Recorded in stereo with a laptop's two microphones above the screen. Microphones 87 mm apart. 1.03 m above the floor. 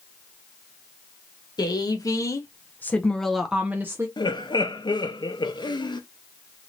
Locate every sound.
1.6 s a woman speaking: 55° left (ahead or behind), 1.1 m; by 4.1 s 30° right (ahead or behind), 0.7 m
4.2 s laughter: 65° left (ahead or behind), 0.8 m